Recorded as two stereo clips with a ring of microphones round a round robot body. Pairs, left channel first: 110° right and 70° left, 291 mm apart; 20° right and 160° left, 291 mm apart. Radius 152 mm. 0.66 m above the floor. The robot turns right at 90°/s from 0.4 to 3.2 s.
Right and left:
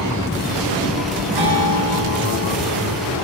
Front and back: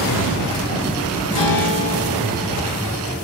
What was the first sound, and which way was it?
A guitar, 10° left.